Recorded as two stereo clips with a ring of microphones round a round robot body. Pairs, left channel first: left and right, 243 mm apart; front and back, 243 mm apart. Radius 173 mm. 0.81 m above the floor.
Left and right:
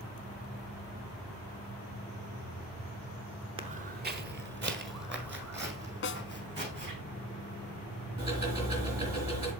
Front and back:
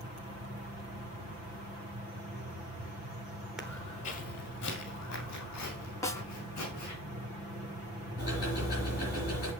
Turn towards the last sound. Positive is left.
turn(degrees=-100)